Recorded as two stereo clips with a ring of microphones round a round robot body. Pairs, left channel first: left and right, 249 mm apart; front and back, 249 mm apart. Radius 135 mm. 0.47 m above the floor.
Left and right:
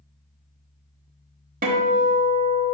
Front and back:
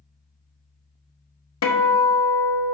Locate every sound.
1.6 s a guitar: 30° right, 1.0 m